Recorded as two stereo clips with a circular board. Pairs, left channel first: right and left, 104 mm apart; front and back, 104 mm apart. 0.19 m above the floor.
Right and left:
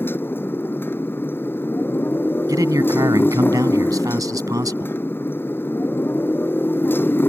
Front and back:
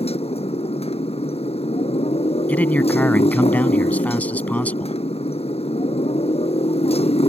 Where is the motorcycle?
20° right.